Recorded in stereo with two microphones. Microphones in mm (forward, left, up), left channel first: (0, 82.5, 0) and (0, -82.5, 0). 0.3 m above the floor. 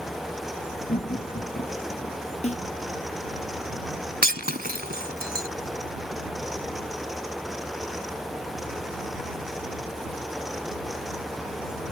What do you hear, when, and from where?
0.9 s laughter: 60° left (ahead or behind); by 2.2 s 45° left (ahead or behind)
2.4 s a snare drum: 40° left (ahead or behind)
4.2 s breaking glass: 70° right (ahead or behind)